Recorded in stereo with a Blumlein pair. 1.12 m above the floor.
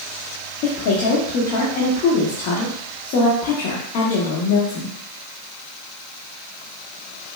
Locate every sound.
0.6 s a woman speaking: 40° left, 1.3 m